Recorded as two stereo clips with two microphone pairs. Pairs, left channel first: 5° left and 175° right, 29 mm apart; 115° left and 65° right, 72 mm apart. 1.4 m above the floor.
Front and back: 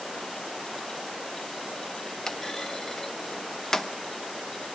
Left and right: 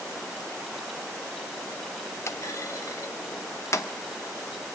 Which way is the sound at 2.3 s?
75° left.